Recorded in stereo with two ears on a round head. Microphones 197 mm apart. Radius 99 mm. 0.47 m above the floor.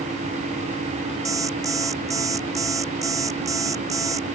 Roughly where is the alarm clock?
Centre.